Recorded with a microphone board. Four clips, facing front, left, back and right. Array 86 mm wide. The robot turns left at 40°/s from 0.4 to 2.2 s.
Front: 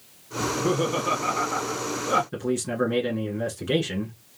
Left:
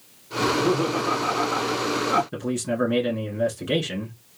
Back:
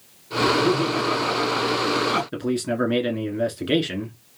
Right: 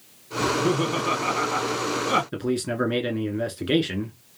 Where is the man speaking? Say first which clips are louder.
Even, back 2 dB; 140° right, 1.2 m.